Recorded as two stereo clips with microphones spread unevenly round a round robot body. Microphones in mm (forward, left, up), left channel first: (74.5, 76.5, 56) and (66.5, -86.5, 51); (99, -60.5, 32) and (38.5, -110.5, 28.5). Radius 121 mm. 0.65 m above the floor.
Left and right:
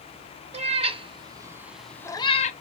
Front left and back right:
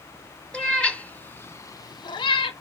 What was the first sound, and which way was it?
A cat meowing, 40° right.